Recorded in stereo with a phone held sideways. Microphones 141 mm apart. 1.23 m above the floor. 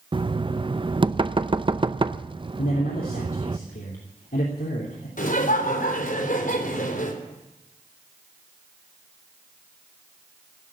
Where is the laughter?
70° left (ahead or behind), 4 m.